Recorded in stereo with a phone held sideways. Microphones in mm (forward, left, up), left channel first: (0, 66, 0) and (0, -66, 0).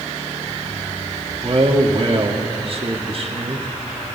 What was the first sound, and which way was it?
A man speaking, 50° right (ahead or behind).